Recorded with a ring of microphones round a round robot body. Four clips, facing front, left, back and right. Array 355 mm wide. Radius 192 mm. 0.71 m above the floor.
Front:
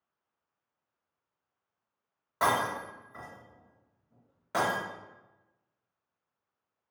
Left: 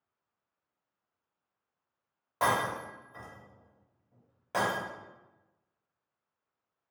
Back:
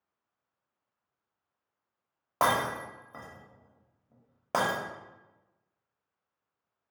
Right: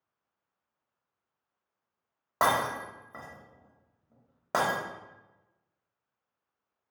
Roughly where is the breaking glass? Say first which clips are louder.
Right 2 dB, back 1 dB; behind right.